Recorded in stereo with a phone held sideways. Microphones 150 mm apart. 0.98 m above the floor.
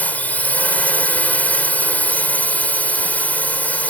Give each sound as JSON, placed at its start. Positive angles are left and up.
{"t": 0.0, "sound": "a drone", "side_deg": 10}